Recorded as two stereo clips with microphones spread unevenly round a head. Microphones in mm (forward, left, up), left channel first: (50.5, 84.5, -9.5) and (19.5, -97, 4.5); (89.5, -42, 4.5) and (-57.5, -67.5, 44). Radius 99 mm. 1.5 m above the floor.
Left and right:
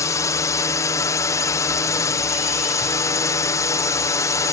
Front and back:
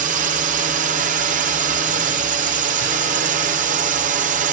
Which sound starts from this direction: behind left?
A drone, at 0.0 s.